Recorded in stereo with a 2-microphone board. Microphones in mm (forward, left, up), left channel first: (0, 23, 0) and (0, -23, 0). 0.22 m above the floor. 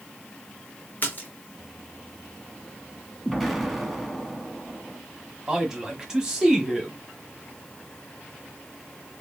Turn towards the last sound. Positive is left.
turn(degrees=-15)  # may be behind; listen again after turning